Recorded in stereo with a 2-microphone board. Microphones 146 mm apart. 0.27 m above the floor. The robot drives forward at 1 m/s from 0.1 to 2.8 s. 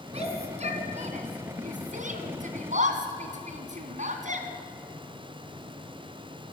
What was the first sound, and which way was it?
A shout, 45° right (ahead or behind).